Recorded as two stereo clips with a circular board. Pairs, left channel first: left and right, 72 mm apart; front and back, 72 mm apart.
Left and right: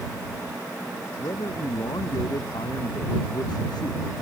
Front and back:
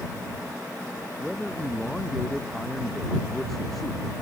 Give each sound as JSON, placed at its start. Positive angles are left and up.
{"t": 1.2, "sound": "a man speaking", "azimuth_deg": 90}